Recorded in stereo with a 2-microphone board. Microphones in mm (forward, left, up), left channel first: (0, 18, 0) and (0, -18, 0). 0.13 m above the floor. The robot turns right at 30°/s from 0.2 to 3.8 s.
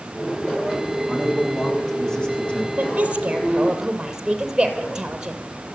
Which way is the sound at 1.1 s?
10° right.